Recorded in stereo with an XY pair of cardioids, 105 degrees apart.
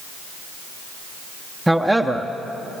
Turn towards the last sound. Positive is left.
turn(degrees=-5)